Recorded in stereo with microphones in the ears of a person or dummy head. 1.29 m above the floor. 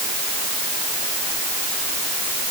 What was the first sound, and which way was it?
Only background noise.